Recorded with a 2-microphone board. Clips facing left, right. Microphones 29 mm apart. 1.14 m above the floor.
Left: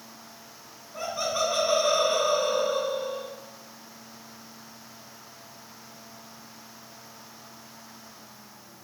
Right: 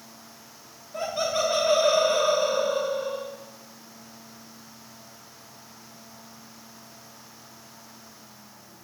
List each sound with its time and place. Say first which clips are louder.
0.9 s laughter: right 2 dB; 80° right, 5.5 m; by 3.3 s 85° right, 5.5 m